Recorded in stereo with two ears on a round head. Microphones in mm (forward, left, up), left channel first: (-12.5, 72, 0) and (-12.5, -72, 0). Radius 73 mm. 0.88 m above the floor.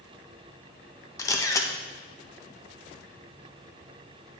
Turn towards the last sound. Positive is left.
turn(degrees=20)  # may be behind; listen again after turning